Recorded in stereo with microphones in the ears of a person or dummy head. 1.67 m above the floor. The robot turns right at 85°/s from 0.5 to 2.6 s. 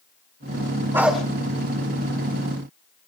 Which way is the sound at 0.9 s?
20° right (ahead or behind).